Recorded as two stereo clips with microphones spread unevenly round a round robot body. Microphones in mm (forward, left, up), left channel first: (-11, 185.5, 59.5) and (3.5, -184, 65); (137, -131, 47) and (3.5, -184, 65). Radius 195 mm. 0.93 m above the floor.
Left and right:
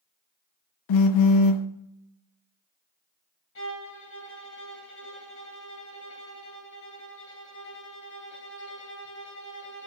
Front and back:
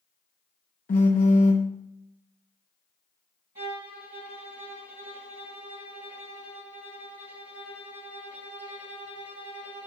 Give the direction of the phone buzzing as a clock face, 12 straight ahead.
10 o'clock.